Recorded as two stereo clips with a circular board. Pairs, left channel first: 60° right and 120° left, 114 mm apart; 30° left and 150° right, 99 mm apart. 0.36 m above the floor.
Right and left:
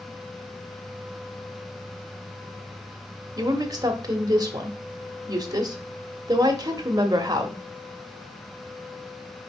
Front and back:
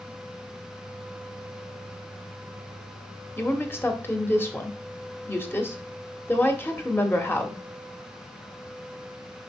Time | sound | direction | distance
3.4 | a woman speaking | 85° left | 1.2 m